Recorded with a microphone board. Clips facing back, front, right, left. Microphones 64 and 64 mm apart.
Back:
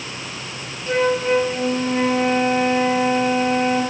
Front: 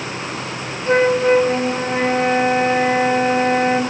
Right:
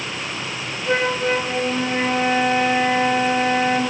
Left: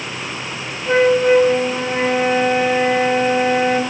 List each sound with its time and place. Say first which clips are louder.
0.9 s a flute: front 4 dB, left 7 dB; 10° left, 0.9 m